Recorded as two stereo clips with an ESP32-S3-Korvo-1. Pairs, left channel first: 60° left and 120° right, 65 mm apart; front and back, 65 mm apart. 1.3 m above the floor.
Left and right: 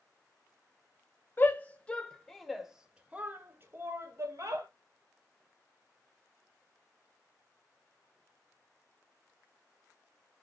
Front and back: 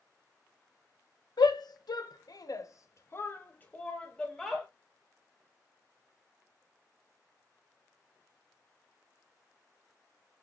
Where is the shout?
Straight ahead, 1.1 m; by 4.7 s 85° right, 1.4 m.